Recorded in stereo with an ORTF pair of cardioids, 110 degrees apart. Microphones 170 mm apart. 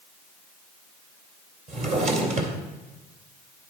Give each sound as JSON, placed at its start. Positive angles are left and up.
{"t": 1.7, "sound": "a drawer", "azimuth_deg": -50, "distance_m": 2.5}